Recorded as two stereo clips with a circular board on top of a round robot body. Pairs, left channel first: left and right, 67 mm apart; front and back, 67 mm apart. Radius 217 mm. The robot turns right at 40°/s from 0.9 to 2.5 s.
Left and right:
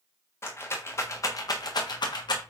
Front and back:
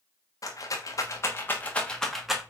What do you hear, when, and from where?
0.4 s a rattle: 40° left, 1.4 m; by 2.4 s 100° left, 1.4 m